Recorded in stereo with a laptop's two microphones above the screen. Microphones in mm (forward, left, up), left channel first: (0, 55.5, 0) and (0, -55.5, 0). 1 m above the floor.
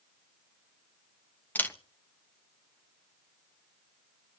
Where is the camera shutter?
15° left (ahead or behind), 1.4 m.